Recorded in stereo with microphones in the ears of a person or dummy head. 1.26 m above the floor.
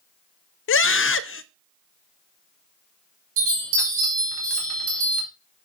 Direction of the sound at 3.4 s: 75° right (ahead or behind).